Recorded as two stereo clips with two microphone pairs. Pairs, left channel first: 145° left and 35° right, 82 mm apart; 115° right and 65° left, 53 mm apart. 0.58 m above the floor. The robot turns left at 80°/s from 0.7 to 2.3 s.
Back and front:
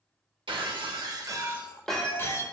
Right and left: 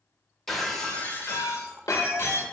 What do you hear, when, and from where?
0.5 s breaking glass: 30° right, 0.7 m; by 2.4 s 160° right, 0.7 m